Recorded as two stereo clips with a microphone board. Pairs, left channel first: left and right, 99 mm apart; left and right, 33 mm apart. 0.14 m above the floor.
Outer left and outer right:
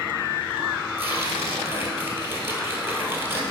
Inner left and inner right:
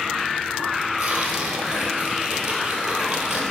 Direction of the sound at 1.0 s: 25° right (ahead or behind).